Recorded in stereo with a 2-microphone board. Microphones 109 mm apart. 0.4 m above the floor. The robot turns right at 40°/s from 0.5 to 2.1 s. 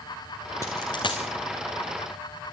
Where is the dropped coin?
30° left (ahead or behind), 2.5 m; by 1.2 s 55° left (ahead or behind), 2.5 m.